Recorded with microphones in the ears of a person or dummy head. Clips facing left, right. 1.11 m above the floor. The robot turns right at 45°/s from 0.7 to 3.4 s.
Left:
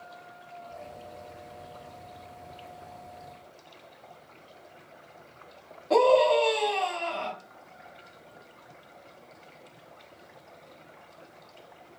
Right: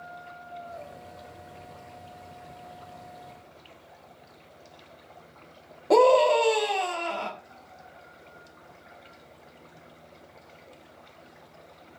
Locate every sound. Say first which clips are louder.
5.9 s a scream: right 2 dB; 60° right (ahead or behind), 1.4 m